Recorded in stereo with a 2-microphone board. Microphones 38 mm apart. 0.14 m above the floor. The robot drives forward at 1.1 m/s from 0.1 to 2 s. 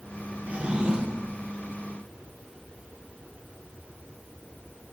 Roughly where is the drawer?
Right.